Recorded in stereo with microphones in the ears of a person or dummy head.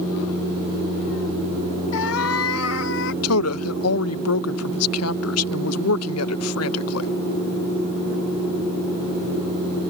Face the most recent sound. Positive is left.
turn(degrees=80)